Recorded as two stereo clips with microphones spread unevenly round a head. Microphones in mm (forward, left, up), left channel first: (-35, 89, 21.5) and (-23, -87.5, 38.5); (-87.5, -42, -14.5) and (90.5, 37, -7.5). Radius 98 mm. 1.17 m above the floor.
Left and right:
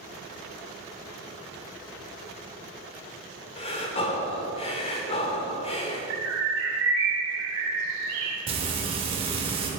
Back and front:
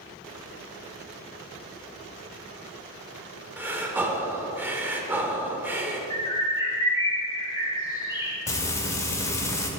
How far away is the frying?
About 0.9 m.